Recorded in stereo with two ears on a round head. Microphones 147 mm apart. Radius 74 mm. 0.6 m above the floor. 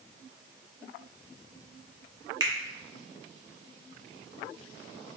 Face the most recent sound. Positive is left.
turn(degrees=-25)  # may be behind; listen again after turning